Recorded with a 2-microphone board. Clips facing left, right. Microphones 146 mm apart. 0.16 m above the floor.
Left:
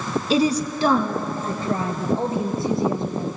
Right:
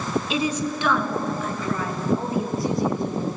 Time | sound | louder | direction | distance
0.3 | a woman speaking | left 10 dB | 35° left (ahead or behind) | 1.6 m